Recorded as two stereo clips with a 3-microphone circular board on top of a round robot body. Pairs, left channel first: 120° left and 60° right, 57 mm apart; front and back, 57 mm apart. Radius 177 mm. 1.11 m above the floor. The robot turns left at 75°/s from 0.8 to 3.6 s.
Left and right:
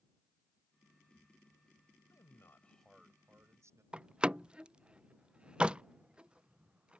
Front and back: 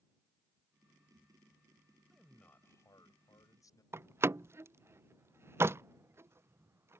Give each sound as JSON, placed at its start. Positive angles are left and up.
{"t": 2.1, "sound": "a man speaking", "azimuth_deg": 90}
{"t": 3.9, "sound": "a door slam", "azimuth_deg": -135}